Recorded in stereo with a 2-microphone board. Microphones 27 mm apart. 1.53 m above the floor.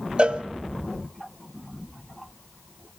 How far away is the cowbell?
About 1.8 m.